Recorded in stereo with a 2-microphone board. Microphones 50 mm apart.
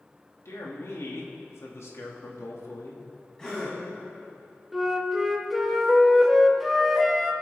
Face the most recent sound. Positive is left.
turn(degrees=0)  # may be behind; listen again after turning